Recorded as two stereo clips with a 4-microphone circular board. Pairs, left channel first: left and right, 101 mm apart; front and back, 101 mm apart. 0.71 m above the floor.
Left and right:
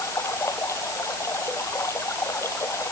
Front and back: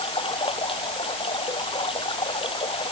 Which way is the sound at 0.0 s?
30° left.